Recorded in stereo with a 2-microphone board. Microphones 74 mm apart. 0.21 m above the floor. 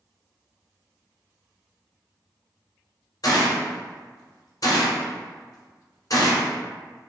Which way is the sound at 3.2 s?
55° left (ahead or behind).